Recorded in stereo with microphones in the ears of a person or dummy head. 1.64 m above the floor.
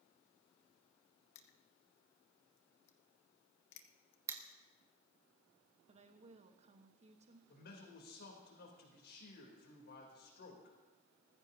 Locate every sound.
1.4 s crushing: 65° left (ahead or behind), 1.1 m
4.3 s crushing: 20° right (ahead or behind), 1.6 m
5.9 s a woman speaking: 30° right (ahead or behind), 1.2 m
7.5 s a man speaking: 60° left (ahead or behind), 3.5 m